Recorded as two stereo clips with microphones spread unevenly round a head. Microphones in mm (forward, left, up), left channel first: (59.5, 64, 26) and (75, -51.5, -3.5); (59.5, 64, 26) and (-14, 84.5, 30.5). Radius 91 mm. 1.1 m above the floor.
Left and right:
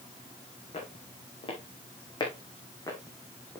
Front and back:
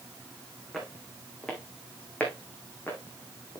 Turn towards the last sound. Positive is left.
turn(degrees=35)